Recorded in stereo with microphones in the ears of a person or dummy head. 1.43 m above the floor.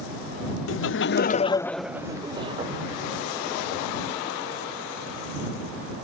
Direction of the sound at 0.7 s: 65° left (ahead or behind).